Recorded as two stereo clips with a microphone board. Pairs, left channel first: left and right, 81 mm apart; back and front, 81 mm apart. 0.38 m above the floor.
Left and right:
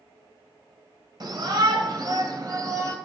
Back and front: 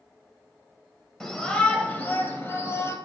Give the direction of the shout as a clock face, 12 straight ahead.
3 o'clock.